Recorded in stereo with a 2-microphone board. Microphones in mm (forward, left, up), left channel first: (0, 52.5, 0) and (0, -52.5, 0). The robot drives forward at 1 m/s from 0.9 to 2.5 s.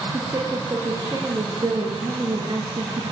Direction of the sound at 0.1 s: 35° right (ahead or behind).